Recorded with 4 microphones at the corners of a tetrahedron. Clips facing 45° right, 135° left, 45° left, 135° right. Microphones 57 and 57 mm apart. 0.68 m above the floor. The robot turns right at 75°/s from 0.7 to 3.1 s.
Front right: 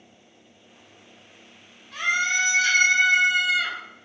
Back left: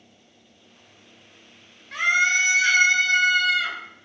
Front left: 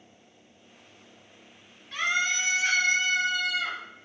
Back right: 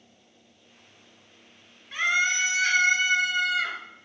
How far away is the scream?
About 2.5 m.